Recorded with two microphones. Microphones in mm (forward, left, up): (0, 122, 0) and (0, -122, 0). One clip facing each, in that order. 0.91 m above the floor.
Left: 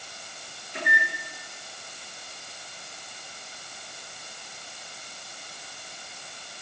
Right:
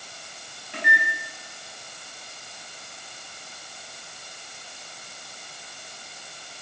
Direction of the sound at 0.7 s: 80° right.